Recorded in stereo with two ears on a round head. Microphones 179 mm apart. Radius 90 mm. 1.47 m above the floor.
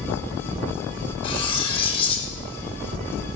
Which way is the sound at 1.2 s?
25° left (ahead or behind).